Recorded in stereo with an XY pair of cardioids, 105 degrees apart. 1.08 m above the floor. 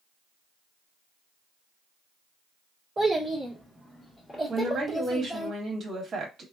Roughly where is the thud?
I don't hear a thud.